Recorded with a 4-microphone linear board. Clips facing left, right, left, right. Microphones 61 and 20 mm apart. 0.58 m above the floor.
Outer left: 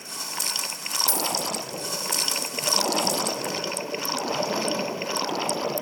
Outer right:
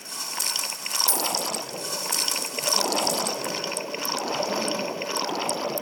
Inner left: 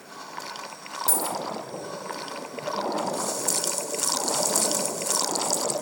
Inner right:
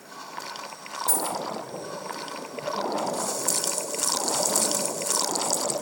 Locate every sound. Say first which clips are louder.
1.1 s a dropped coin: even, even; 50° left (ahead or behind), 3.5 m